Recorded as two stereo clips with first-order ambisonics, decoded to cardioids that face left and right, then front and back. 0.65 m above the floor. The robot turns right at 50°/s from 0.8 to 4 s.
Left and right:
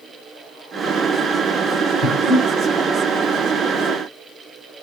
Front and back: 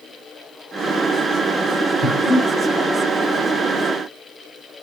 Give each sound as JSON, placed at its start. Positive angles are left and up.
{"t": 2.0, "sound": "breathing", "azimuth_deg": 50, "distance_m": 4.0}